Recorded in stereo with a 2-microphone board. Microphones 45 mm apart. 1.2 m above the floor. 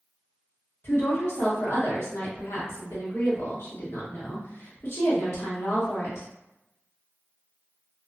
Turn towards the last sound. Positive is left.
turn(degrees=65)  # may be behind; listen again after turning